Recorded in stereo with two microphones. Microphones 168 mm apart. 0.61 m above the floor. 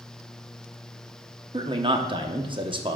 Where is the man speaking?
30° right (ahead or behind), 0.8 m.